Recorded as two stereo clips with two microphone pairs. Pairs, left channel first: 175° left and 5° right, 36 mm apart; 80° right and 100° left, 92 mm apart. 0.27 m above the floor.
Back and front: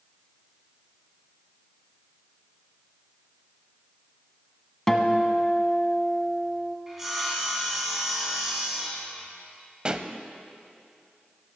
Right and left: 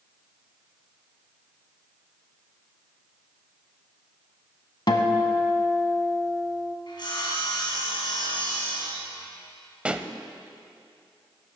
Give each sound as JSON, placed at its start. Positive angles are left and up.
{"t": 4.9, "sound": "a guitar", "azimuth_deg": -105, "distance_m": 0.9}
{"t": 6.9, "sound": "sawing", "azimuth_deg": -80, "distance_m": 2.5}
{"t": 9.8, "sound": "a pop", "azimuth_deg": 30, "distance_m": 0.5}